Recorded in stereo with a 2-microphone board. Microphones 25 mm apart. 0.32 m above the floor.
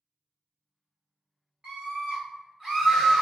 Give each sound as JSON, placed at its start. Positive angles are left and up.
{"t": 1.6, "sound": "a scream", "side_deg": -40, "distance_m": 2.0}